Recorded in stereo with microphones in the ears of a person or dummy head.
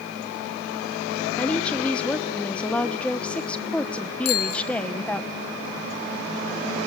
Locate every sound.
1.4 s a woman speaking: 5° left (ahead or behind), 1.2 m
4.2 s a bicycle bell: 75° left (ahead or behind), 4.5 m